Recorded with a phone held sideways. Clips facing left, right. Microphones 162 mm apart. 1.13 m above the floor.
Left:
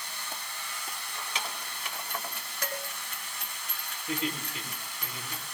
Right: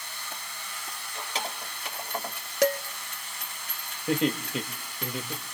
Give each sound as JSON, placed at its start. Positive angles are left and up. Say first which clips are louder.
{"t": 0.9, "sound": "keys jangling", "louder": "right 4 dB", "side_deg": -35, "distance_m": 4.0}
{"t": 2.6, "sound": "dishes clattering", "louder": "right 14 dB", "side_deg": -80, "distance_m": 1.1}
{"t": 4.1, "sound": "laughter", "louder": "right 8 dB", "side_deg": -75, "distance_m": 2.0}